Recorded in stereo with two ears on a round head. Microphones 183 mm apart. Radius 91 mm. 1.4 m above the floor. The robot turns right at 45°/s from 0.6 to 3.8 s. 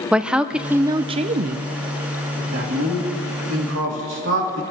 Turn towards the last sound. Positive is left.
turn(degrees=-70)  # may be behind; listen again after turning